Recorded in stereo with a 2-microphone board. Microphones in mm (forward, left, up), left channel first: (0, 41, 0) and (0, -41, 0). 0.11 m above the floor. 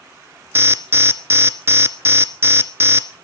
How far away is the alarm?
About 1.0 m.